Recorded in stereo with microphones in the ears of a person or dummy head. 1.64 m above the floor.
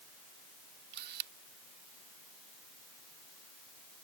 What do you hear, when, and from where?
0.9 s a camera shutter: 55° right (ahead or behind)